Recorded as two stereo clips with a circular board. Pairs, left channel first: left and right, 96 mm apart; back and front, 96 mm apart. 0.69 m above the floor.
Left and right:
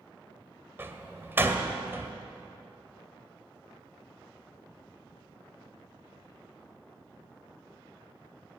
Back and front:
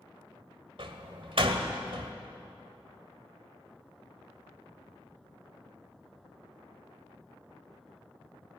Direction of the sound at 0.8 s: 25° right.